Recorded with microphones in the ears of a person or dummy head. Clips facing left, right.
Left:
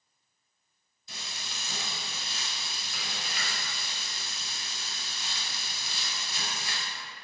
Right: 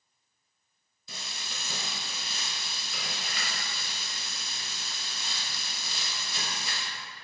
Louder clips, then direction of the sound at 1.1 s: Right 1 dB; 70° right (ahead or behind).